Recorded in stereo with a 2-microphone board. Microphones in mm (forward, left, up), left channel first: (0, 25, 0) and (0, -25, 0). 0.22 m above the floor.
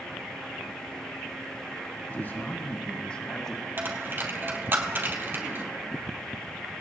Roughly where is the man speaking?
Left.